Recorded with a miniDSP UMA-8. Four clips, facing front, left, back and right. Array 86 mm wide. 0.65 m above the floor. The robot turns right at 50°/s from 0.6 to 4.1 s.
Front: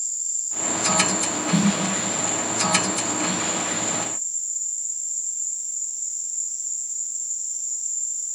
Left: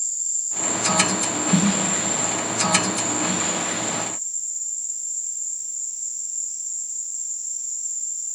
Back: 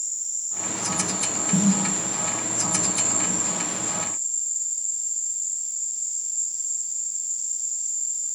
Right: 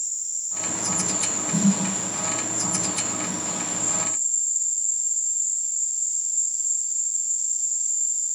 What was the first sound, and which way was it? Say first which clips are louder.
An insect: left 3 dB, front 2 dB; 60° left.